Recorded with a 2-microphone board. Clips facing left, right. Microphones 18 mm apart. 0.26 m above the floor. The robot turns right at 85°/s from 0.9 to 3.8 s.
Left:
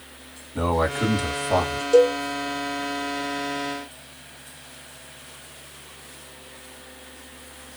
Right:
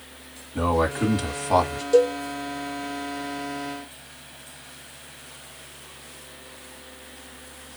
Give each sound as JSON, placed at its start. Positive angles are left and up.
{"t": 0.6, "sound": "a man speaking", "azimuth_deg": 165, "distance_m": 2.5}
{"t": 1.9, "sound": "a cowbell", "side_deg": 0, "distance_m": 1.6}